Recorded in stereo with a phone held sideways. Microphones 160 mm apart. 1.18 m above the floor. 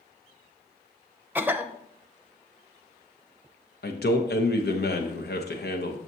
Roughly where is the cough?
Centre.